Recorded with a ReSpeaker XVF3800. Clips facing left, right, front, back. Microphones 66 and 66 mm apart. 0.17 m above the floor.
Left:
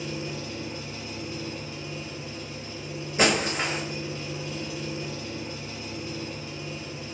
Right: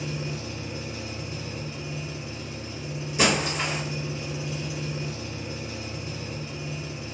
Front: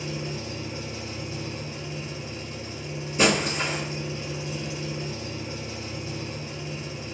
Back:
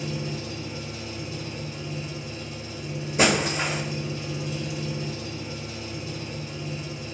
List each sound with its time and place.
0.0 s an engine running: 30° right, 1.1 m
3.2 s breaking glass: 145° left, 1.3 m